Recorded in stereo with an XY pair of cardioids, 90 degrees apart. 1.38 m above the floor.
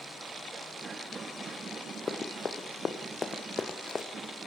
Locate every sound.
2.1 s running footsteps: 40° left, 4.5 m; by 4.1 s 30° left, 3.5 m